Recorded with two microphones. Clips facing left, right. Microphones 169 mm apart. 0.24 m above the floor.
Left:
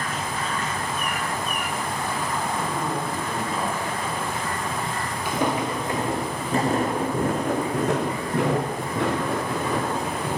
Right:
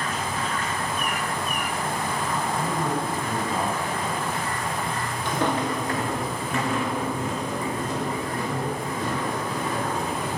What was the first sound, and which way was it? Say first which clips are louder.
A man speaking: right 1 dB; 40° right (ahead or behind).